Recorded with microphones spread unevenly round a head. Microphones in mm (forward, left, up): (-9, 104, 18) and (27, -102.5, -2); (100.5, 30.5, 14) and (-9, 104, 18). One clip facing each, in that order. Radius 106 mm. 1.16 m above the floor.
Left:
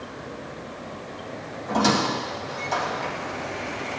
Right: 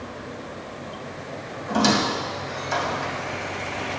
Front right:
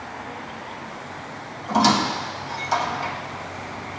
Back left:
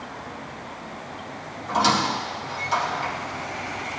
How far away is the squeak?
About 1.7 m.